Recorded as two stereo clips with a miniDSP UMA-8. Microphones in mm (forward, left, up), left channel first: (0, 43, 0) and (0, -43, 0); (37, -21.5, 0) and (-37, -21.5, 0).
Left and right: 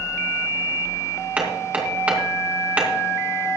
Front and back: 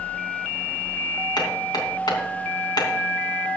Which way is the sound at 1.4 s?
15° right.